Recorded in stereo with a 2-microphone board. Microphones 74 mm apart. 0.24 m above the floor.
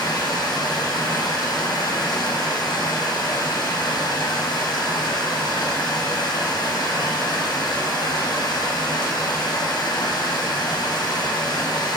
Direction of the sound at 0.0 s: 80° left.